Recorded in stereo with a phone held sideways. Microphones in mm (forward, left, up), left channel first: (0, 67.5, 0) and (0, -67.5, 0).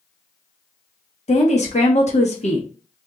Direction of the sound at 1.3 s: 55° left (ahead or behind).